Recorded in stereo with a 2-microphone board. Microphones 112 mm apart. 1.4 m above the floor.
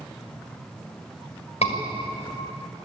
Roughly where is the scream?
Left.